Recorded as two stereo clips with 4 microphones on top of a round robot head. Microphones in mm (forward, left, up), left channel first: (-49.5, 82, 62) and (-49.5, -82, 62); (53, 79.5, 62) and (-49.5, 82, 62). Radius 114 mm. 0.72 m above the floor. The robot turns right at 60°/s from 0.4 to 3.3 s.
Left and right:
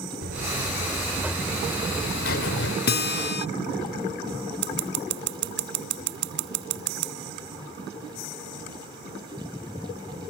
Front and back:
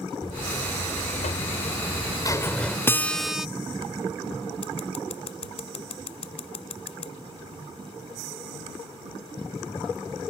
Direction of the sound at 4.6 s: 60° right.